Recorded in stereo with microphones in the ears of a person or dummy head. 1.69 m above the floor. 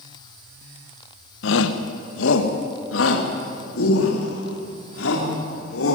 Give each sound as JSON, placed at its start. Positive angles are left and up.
{"t": 1.4, "sound": "a shout", "side_deg": 80, "distance_m": 1.7}